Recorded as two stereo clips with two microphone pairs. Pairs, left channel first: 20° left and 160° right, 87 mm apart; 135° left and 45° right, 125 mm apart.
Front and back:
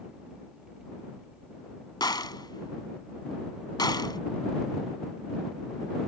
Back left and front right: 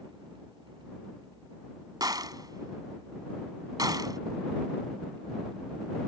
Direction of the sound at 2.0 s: 5° left.